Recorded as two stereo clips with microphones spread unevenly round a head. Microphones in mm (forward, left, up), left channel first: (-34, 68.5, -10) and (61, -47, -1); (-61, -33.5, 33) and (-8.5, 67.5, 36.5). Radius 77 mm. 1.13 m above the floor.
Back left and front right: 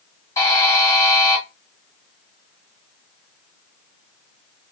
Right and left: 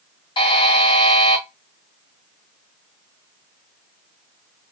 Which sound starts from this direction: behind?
A buzzer, at 0.4 s.